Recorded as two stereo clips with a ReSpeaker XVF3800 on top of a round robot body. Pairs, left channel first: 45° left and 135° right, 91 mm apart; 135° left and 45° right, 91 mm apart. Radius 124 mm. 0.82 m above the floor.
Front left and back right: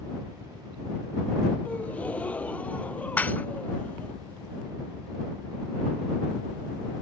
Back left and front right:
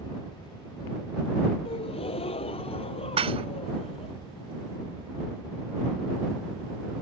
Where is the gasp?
120° left.